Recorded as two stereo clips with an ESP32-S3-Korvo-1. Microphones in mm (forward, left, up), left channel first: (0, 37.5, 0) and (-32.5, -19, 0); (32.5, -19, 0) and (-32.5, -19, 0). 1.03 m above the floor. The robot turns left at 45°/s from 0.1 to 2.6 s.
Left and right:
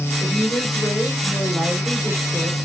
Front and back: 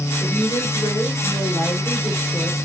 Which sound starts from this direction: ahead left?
A woman speaking, at 0.2 s.